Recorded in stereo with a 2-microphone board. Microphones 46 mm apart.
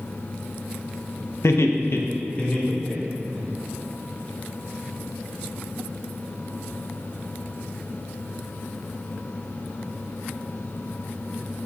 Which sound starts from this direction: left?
Laughter, at 1.4 s.